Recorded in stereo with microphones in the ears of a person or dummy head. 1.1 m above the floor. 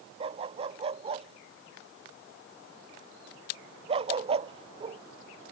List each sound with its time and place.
0.2 s a dog barking: 25° right (ahead or behind)